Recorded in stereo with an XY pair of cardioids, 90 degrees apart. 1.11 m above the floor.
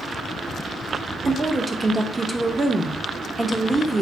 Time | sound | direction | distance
1.2 | a woman speaking | 20° right | 0.7 m